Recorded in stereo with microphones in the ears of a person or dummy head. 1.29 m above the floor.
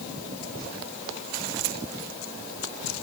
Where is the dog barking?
No dog barking in this recording.